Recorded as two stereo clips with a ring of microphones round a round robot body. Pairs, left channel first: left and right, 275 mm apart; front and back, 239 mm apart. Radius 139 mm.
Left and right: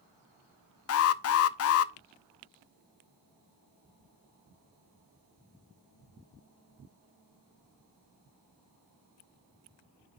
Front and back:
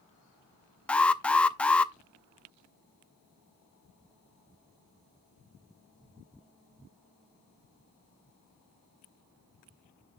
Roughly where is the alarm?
Left.